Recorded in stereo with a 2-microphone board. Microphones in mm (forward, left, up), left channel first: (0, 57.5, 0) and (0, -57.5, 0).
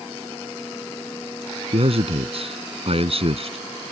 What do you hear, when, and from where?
1.7 s a man speaking: 55° right (ahead or behind)